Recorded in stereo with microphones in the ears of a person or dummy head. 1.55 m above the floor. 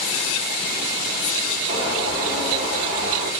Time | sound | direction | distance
1.7 | a bird | 50° right (ahead or behind) | 1.2 m